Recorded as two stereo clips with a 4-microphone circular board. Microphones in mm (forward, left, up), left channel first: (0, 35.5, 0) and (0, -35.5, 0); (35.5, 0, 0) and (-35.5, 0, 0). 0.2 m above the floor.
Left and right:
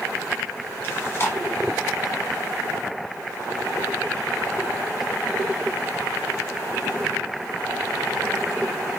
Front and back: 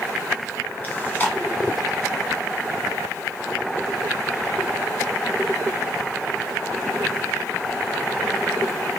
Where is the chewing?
55° left, 1.1 m.